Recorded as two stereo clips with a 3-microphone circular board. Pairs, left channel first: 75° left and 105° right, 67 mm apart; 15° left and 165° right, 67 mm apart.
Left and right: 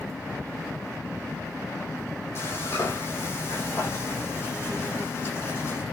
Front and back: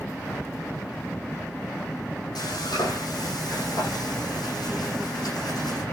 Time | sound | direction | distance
2.4 | frying | 25° left | 9.5 m